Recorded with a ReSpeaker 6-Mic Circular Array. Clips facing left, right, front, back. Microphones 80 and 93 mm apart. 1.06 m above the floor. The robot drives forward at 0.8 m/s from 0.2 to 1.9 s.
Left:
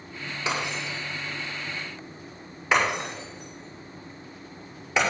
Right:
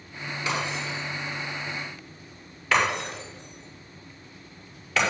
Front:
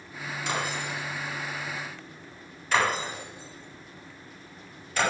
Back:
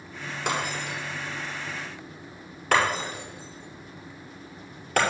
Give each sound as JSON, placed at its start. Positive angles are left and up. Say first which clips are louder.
{"t": 0.5, "sound": "breaking glass", "louder": "even, back 2 dB", "azimuth_deg": 155, "distance_m": 4.5}